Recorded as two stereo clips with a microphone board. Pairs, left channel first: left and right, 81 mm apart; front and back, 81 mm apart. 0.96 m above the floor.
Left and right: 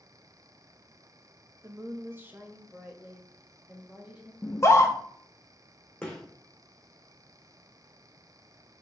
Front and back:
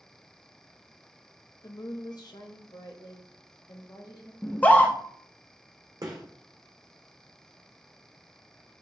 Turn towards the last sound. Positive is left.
turn(degrees=170)